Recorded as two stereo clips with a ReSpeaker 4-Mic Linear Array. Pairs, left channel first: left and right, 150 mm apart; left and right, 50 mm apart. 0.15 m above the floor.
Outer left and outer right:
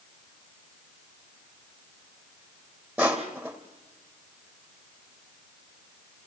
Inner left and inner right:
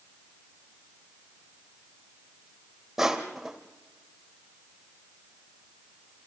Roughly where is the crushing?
Centre.